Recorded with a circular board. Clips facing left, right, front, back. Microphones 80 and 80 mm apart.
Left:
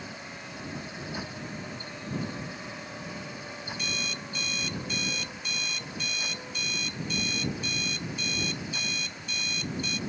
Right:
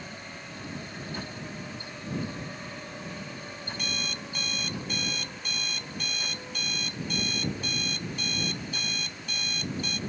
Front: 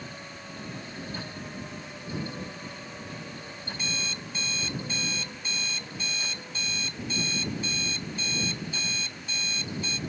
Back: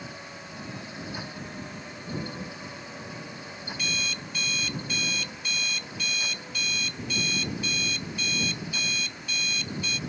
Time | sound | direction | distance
3.7 | an alarm clock | 60° right | ?